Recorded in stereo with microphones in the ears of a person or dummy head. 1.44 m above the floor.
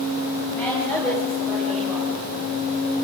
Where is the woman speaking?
15° left (ahead or behind), 8.5 m; by 2.5 s 5° right (ahead or behind), 6 m.